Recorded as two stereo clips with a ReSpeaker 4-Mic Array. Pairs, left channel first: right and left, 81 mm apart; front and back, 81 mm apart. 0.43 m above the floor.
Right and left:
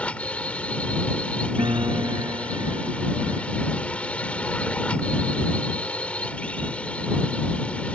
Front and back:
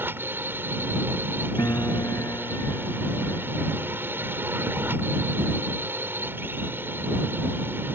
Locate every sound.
0.0 s a drone: 150° right
1.6 s a piano: 55° left